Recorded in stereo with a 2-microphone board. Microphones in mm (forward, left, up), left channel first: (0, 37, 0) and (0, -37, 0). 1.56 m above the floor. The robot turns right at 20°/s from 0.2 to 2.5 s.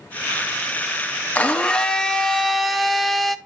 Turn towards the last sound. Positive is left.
turn(degrees=0)  # may be behind; listen again after turning